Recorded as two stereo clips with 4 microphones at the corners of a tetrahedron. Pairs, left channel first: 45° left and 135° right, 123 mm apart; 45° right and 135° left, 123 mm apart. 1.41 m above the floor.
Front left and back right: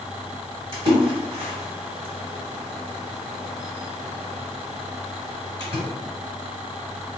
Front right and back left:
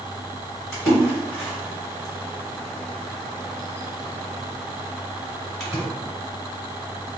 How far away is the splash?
About 1.7 m.